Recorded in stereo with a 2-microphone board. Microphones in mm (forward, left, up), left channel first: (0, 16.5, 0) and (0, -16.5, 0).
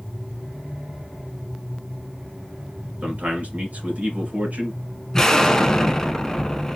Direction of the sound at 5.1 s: 15° left (ahead or behind).